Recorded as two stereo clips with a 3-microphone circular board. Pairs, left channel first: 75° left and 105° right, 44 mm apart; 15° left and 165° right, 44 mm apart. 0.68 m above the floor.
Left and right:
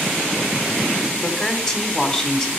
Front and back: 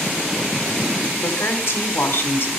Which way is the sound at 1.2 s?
5° left.